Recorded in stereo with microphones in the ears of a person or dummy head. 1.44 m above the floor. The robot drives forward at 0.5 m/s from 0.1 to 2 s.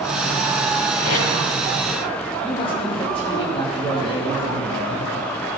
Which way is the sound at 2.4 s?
20° left (ahead or behind).